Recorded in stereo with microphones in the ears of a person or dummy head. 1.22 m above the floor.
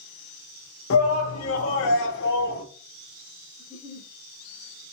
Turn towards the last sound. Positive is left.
turn(degrees=-10)  # may be behind; listen again after turning